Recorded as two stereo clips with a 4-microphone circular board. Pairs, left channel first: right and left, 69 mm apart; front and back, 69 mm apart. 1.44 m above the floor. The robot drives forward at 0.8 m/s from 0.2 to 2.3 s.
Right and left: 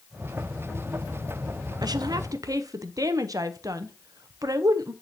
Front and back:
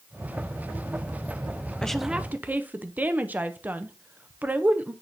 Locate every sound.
1.8 s a woman speaking: 80° left, 0.6 m; by 4.9 s 115° left, 0.6 m